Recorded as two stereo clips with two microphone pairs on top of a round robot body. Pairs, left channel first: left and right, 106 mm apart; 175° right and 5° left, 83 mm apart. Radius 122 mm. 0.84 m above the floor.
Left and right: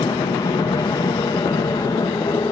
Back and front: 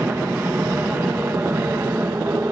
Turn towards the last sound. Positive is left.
turn(degrees=55)